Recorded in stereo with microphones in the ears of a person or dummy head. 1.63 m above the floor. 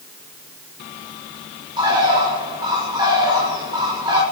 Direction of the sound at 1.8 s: 20° right (ahead or behind).